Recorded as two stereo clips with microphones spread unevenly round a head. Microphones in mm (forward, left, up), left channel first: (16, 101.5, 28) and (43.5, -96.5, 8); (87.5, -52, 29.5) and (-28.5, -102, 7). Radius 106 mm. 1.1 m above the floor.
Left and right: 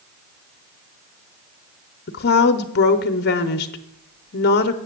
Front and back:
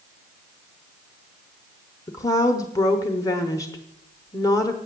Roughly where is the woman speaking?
Left.